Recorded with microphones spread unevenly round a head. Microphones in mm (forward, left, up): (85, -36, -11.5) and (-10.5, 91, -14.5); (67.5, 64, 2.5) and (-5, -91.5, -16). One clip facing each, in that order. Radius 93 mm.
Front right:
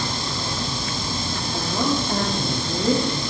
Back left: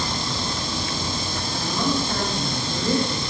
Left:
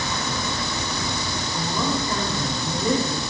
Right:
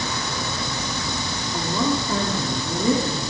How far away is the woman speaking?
About 5 m.